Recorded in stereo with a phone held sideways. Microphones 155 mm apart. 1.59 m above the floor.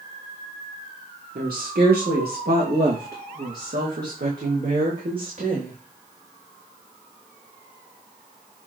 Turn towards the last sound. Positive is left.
turn(degrees=-65)  # may be behind; listen again after turning